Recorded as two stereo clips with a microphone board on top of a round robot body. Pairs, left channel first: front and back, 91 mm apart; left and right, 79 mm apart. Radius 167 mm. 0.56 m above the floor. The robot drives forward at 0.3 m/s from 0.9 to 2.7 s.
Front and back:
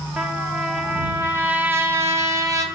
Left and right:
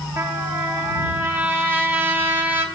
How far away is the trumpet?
About 1.3 m.